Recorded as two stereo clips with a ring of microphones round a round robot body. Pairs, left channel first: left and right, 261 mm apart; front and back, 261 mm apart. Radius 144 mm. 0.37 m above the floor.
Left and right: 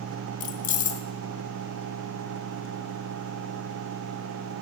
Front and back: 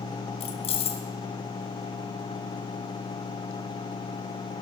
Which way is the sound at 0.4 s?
55° left.